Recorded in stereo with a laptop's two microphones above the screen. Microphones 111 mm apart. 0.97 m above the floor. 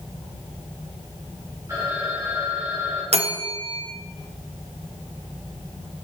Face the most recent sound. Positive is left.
turn(degrees=-70)  # may be behind; listen again after turning